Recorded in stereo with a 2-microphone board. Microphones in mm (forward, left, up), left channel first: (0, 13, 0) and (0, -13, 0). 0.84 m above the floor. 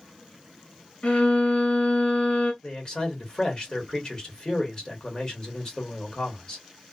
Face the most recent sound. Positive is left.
turn(degrees=35)  # may be behind; listen again after turning